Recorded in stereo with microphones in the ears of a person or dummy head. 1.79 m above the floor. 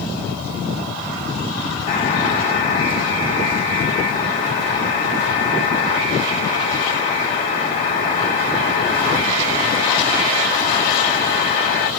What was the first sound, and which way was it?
A buzzer, 45° left (ahead or behind).